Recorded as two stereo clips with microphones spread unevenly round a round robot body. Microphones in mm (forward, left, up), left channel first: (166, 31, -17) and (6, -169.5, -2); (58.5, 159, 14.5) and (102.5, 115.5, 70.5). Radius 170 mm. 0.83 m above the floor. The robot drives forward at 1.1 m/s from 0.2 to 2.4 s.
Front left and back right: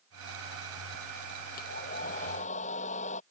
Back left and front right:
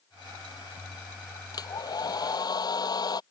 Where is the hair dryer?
120° left; by 3.2 s 125° left.